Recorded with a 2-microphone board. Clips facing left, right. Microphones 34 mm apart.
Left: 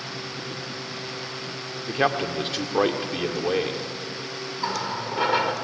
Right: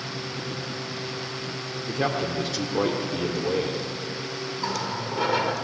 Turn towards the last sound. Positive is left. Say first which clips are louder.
# left 2 dB
turn(degrees=20)  # may be behind; listen again after turning